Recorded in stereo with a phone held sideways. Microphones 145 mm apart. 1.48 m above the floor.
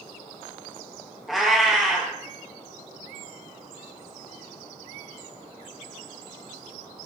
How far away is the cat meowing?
About 0.8 m.